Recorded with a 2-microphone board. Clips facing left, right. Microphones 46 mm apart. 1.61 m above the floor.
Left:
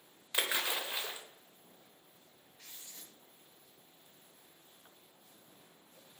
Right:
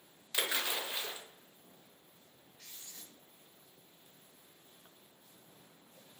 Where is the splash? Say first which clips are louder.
Left 1 dB; 15° left (ahead or behind), 0.6 m.